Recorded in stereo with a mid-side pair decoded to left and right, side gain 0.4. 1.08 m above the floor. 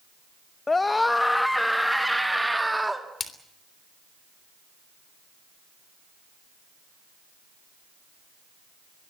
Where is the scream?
30° left, 1.0 m; by 3.1 s 15° right, 2 m.